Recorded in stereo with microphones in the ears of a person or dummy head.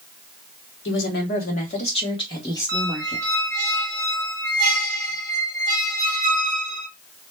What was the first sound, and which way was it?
A woman speaking, 55° left (ahead or behind).